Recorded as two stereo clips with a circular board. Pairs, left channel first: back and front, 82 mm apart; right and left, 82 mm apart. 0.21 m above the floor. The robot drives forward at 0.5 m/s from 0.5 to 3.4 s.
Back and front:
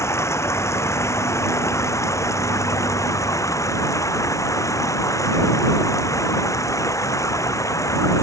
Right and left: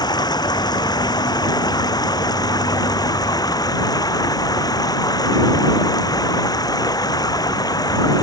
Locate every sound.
0.0 s running water: 125° right; by 8.2 s 130° right